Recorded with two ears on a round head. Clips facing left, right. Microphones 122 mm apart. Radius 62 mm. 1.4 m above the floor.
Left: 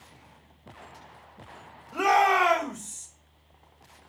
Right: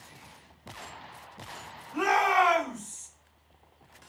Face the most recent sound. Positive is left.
turn(degrees=30)  # may be behind; listen again after turning